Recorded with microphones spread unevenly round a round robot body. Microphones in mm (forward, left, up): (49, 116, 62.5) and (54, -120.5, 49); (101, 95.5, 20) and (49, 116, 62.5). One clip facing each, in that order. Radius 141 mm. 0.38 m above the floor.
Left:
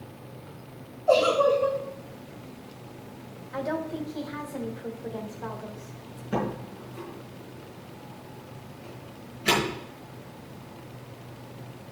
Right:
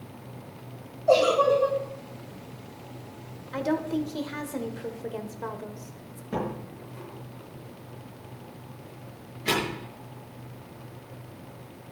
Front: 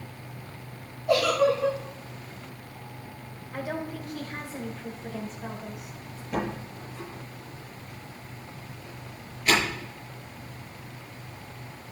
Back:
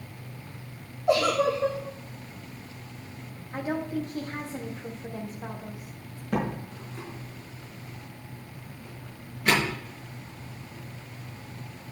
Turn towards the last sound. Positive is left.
turn(degrees=175)